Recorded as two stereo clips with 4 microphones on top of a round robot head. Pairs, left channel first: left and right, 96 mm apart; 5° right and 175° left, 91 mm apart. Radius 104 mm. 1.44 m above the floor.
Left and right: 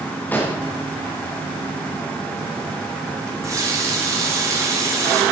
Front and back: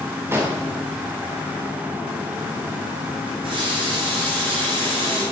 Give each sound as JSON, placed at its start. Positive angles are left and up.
{"t": 0.3, "sound": "an explosion", "azimuth_deg": 145, "distance_m": 0.6}
{"t": 3.3, "sound": "a running tap", "azimuth_deg": -145, "distance_m": 1.9}